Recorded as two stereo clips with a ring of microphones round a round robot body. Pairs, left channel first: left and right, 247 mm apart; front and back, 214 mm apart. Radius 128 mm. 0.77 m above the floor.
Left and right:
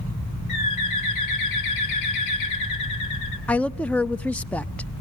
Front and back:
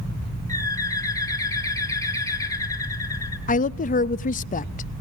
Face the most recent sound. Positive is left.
turn(degrees=10)